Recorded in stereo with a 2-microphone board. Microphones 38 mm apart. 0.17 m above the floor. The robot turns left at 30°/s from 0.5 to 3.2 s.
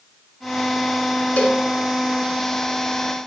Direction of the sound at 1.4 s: 40° left (ahead or behind).